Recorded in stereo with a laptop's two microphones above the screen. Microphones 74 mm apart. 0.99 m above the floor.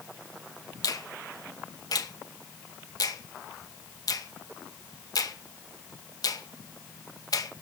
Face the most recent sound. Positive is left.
turn(degrees=60)  # may be behind; listen again after turning